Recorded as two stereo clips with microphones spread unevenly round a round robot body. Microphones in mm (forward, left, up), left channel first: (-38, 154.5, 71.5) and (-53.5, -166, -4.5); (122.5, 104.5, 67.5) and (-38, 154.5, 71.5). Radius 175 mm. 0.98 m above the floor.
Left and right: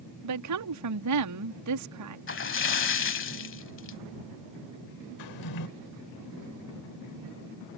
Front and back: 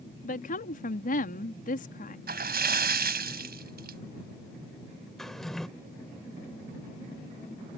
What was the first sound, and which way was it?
A woman speaking, 65° right.